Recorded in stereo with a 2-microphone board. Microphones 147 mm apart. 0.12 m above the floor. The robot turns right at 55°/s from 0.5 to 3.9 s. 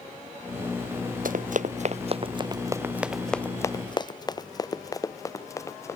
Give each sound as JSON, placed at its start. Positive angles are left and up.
{"t": 1.2, "sound": "running footsteps", "side_deg": -70}